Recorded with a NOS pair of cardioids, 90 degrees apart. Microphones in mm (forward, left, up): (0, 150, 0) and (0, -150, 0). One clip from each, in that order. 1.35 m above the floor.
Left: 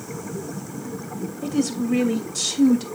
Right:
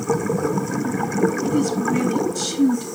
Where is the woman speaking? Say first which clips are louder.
Right 4 dB; 45° left, 2.5 m.